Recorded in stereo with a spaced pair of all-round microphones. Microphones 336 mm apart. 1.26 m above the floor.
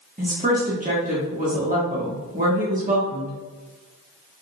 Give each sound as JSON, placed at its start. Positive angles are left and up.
{"t": 0.2, "sound": "a woman speaking", "side_deg": -25, "distance_m": 1.2}